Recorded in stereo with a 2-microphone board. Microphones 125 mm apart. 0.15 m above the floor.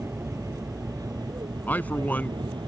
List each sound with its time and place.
0.0 s an aircraft: 25° right (ahead or behind); by 2.7 s 35° right (ahead or behind)
1.7 s a man speaking: 15° left (ahead or behind)